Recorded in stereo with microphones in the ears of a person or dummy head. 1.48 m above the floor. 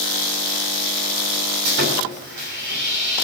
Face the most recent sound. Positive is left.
turn(degrees=-65)  # may be behind; listen again after turning